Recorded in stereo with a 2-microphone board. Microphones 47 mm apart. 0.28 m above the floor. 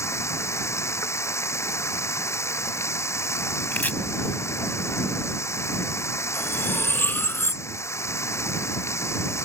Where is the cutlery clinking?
45° left (ahead or behind).